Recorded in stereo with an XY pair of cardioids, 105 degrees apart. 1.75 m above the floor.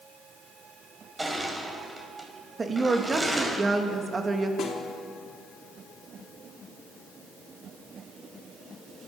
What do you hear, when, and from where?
1.2 s crushing: 15° right, 5.5 m
2.6 s a woman speaking: 30° right, 3 m
4.6 s a snare drum: 65° left, 4 m